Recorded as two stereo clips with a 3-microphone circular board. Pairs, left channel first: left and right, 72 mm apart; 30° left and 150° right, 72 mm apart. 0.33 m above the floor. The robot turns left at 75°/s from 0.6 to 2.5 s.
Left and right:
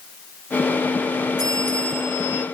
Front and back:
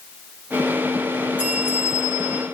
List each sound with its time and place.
1.4 s a bell: 75° right, 4.5 m; by 2.4 s 155° right, 4.5 m